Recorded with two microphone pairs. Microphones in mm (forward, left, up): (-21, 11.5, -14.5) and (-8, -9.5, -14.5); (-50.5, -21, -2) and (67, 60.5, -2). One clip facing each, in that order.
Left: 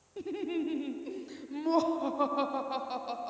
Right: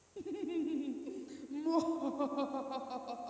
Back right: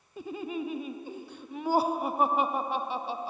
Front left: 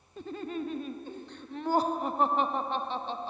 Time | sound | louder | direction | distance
0.2 | laughter | left 4 dB, back right 1 dB | 135° left | ?